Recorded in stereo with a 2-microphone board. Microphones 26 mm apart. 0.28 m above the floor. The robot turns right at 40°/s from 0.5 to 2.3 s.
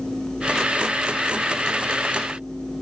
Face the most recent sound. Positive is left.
No sound to turn to.